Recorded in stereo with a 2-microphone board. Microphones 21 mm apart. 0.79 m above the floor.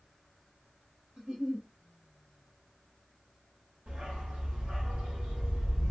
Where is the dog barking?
80° right, 1.3 m.